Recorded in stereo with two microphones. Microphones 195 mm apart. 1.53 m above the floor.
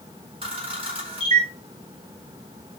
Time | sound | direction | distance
0.4 | a camera shutter | 30° right (ahead or behind) | 2 m